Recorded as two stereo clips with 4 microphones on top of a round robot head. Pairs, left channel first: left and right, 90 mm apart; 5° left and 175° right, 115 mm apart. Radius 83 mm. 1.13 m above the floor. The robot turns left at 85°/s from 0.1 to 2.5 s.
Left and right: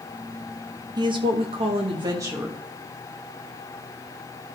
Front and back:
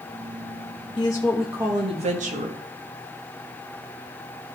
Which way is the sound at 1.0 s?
50° right.